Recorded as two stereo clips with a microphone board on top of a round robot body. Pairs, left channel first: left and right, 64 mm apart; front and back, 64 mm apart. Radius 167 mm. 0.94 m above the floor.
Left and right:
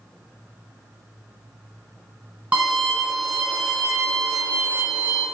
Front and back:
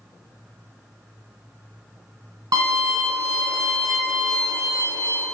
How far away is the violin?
About 1.8 m.